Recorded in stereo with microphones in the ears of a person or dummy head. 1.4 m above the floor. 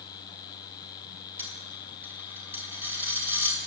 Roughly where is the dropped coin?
Centre.